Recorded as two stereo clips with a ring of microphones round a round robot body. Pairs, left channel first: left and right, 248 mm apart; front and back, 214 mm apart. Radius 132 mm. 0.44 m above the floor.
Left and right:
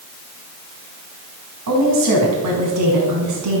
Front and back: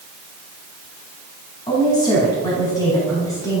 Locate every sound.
1.7 s a woman speaking: 75° right, 4.5 m; by 3.6 s 80° right, 5.5 m